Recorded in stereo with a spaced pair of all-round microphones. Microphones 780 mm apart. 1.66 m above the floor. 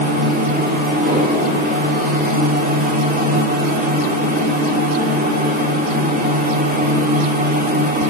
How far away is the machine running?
About 5.5 m.